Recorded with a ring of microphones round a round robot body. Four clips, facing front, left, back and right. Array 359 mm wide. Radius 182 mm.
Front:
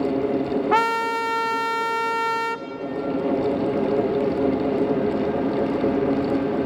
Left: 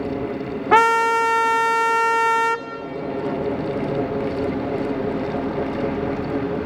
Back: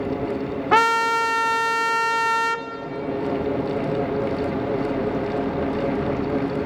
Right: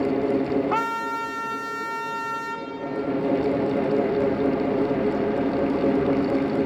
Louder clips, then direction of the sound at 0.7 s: Left 10 dB, back 5 dB; 100° left.